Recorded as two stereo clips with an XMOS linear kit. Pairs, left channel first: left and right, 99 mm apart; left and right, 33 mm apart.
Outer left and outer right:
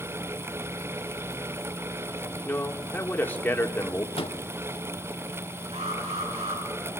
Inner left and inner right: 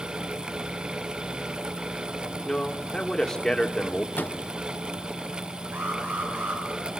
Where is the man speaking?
20° left (ahead or behind), 2.5 m.